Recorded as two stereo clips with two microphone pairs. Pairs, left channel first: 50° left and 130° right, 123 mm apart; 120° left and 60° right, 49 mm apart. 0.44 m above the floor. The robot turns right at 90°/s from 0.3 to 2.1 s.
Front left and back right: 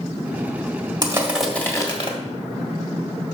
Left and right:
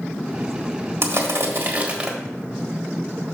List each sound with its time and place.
1.0 s crushing: 80° right, 1.5 m; by 2.1 s 20° left, 1.5 m